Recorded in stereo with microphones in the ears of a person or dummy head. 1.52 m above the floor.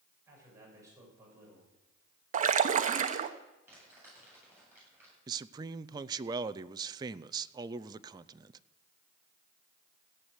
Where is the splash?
40° right (ahead or behind), 0.8 m.